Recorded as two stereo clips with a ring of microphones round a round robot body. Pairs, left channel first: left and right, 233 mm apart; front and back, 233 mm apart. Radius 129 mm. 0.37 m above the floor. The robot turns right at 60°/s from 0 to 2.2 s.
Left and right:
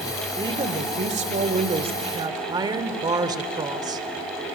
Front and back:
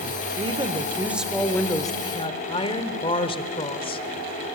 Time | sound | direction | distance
0.4 | a woman speaking | 145° right | 1.5 m